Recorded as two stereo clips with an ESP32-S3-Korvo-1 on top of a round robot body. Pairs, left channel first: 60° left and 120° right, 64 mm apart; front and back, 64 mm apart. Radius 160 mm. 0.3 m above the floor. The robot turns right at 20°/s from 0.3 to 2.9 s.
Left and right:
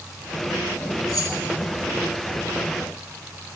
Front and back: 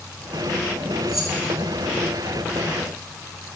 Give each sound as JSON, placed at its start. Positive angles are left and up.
{"t": 1.1, "sound": "keys jangling", "azimuth_deg": 100, "distance_m": 3.5}